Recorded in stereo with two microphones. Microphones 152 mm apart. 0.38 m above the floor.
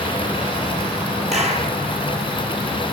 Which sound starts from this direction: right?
A clap, at 1.3 s.